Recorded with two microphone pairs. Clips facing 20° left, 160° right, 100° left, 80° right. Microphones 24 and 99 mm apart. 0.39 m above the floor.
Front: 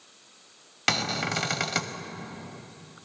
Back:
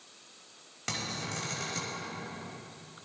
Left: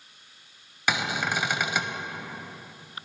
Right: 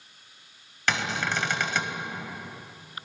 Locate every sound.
0.9 s a cupboard door: 25° left, 0.6 m